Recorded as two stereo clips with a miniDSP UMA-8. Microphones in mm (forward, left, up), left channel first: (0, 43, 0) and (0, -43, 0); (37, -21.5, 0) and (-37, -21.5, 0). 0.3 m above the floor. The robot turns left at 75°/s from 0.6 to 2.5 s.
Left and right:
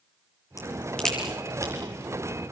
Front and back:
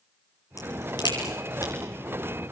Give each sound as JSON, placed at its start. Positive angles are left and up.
{"t": 0.6, "sound": "a crack", "azimuth_deg": 40, "distance_m": 8.5}